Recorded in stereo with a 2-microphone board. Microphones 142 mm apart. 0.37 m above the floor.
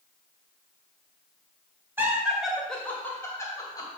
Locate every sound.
2.0 s laughter: 15° right (ahead or behind), 1.7 m; by 3.9 s 30° left (ahead or behind), 2.5 m